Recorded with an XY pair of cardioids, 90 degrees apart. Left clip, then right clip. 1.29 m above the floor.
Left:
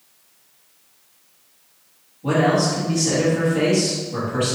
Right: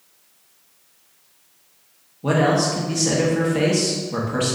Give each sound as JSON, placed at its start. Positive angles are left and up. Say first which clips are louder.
{"t": 2.2, "sound": "a man speaking", "louder": "even", "azimuth_deg": -65, "distance_m": 1.5}